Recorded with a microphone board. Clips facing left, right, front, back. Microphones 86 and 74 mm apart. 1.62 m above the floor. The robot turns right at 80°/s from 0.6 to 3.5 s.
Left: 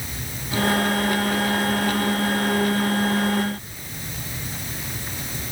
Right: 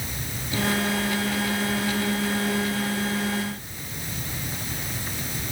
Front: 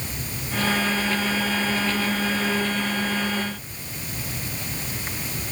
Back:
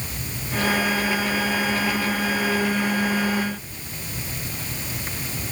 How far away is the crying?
No crying in this recording.